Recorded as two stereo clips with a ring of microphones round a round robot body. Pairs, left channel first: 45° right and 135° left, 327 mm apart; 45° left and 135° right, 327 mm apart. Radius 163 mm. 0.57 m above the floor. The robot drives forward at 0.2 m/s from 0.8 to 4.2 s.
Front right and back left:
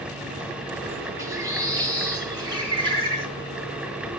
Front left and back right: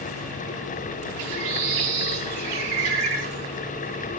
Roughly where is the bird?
Behind right.